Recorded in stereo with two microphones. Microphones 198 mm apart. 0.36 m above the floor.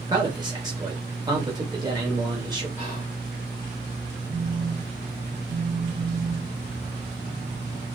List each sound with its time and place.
0.1 s a man speaking: 20° right (ahead or behind), 1.2 m
2.8 s whispering: 30° right (ahead or behind), 1.3 m
4.3 s a phone buzzing: 50° right (ahead or behind), 0.7 m